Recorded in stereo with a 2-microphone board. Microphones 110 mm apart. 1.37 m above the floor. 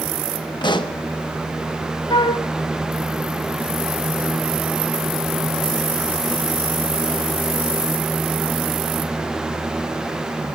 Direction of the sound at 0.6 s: 45° left (ahead or behind).